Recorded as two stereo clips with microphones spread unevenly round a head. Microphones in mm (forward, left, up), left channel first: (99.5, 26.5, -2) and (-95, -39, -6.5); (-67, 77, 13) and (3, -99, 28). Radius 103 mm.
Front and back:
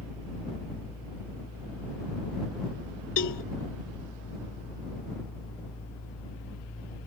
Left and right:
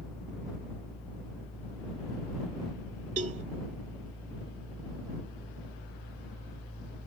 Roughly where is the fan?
Ahead left.